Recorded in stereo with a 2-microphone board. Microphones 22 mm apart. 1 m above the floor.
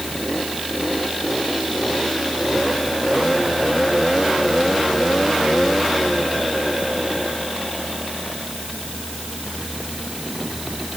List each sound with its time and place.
Only background noise.